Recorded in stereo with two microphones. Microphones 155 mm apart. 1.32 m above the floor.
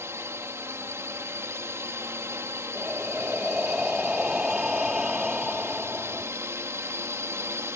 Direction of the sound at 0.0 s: 15° right (ahead or behind).